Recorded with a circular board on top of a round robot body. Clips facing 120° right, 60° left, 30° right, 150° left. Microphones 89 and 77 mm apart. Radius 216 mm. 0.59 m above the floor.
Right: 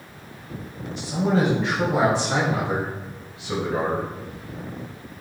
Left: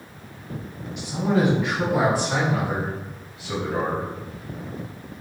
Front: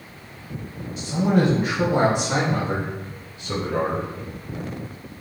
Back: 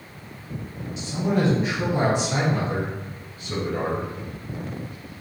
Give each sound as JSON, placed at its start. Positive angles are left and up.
{"t": 1.0, "sound": "a man speaking", "azimuth_deg": -70, "distance_m": 4.5}